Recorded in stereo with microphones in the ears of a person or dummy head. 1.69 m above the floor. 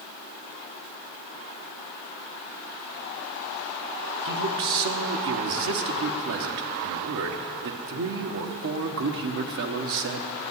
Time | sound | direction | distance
4.2 | a man speaking | 55° right (ahead or behind) | 1.1 m